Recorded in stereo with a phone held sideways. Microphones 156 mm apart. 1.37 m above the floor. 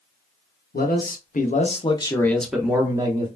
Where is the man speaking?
75° left (ahead or behind), 1.0 m; by 3.3 s 30° right (ahead or behind), 0.9 m.